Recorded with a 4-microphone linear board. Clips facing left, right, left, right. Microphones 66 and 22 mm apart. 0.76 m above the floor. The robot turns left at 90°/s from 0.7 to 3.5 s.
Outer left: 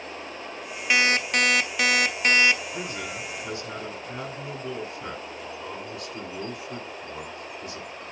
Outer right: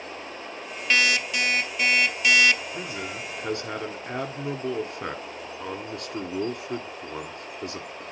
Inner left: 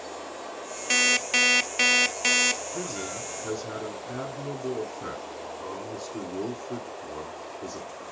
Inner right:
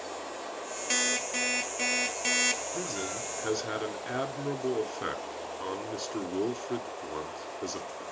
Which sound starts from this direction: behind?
An alarm clock, at 0.9 s.